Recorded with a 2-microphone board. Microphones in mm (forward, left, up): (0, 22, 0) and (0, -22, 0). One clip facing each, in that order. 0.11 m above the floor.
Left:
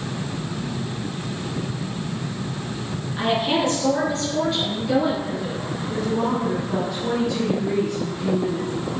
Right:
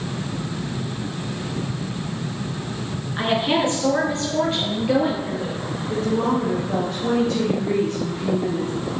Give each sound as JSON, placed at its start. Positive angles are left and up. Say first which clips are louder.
{"t": 3.2, "sound": "a woman speaking", "louder": "right 1 dB", "side_deg": -25, "distance_m": 1.8}
{"t": 5.9, "sound": "a woman speaking", "louder": "right 2 dB", "side_deg": -25, "distance_m": 2.5}